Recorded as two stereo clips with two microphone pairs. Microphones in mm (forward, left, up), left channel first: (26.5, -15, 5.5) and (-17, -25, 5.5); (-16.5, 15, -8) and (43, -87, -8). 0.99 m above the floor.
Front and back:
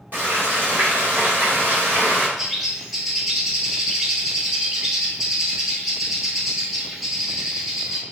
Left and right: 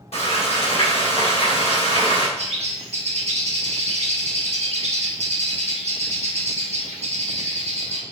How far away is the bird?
About 1.0 m.